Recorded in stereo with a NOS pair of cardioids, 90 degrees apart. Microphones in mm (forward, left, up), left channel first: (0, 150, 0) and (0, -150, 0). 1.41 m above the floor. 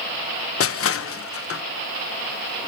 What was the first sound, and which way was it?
Crushing, 45° left.